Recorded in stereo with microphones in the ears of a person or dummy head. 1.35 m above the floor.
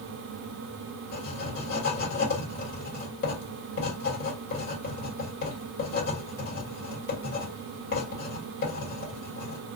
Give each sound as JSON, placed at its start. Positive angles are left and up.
{"t": 1.1, "sound": "writing", "side_deg": 55, "distance_m": 1.4}